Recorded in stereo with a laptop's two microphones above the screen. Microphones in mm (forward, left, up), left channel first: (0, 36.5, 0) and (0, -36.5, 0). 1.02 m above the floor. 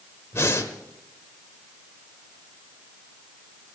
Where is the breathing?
40° left (ahead or behind), 1.1 m.